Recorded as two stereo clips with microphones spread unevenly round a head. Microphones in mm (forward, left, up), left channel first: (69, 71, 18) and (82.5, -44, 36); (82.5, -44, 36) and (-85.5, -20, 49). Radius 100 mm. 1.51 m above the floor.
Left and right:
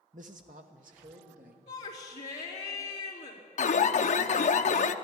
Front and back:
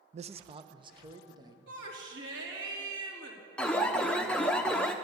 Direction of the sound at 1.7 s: 140° left.